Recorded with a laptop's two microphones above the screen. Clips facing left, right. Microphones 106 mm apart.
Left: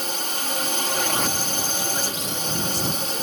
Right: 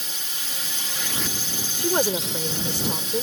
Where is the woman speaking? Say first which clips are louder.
Right 6 dB; 65° right (ahead or behind).